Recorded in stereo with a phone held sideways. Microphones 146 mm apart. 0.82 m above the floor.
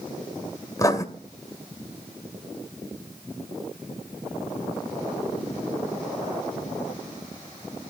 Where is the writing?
25° left (ahead or behind), 2 m.